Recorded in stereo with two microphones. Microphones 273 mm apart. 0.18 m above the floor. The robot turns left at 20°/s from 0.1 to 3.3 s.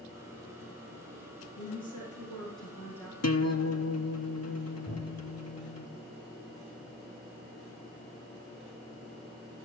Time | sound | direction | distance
1.6 | a woman speaking | 35° left | 7 m
3.2 | a guitar | 65° left (ahead or behind) | 0.9 m
4.9 | a cupboard door | 45° left (ahead or behind) | 7.5 m